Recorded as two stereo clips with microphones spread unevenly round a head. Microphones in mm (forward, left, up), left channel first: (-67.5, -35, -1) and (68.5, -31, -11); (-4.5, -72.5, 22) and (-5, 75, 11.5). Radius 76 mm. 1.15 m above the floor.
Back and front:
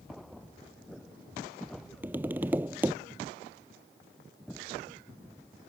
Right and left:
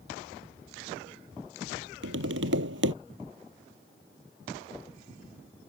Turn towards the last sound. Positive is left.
turn(degrees=80)